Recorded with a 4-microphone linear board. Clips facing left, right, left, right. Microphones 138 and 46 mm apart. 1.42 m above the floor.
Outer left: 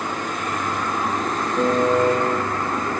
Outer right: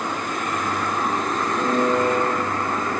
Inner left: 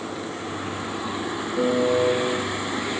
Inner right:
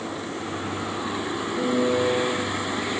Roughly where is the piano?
Left.